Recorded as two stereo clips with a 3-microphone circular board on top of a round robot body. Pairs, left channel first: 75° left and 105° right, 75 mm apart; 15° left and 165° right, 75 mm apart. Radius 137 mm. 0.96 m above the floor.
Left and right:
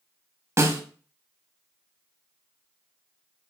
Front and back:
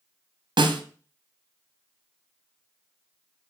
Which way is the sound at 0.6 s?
155° right.